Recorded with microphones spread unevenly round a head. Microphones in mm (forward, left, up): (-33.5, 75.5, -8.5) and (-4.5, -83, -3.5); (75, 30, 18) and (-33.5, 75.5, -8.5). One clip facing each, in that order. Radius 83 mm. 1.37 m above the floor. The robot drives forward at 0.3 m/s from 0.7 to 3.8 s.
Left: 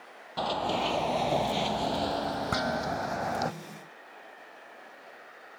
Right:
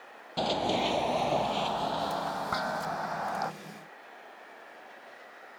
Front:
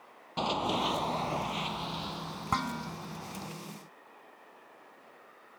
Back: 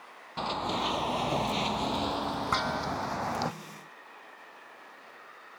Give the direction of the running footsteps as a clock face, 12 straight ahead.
1 o'clock.